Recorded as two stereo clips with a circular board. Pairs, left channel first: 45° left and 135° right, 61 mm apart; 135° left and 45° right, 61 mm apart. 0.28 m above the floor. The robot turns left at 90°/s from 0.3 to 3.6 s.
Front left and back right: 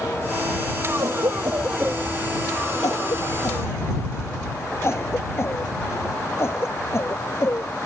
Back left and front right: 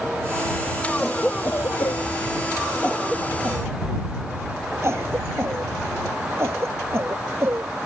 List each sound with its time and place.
1.0 s a cough: 125° right; by 7.7 s 5° right